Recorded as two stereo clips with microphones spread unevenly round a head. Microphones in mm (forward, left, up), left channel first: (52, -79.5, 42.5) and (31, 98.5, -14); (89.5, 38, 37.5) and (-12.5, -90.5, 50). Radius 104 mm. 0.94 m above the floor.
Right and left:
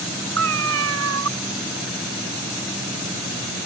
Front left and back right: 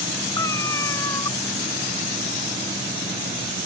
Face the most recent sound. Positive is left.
turn(degrees=130)